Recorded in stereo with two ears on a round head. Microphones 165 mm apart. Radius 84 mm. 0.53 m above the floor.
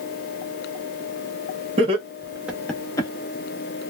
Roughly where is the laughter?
Right.